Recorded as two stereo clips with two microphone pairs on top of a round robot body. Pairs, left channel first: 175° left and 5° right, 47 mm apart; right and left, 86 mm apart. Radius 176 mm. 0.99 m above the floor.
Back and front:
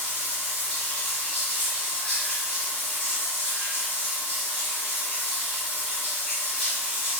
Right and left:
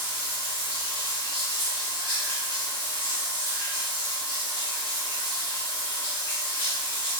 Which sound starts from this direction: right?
Running water, at 0.0 s.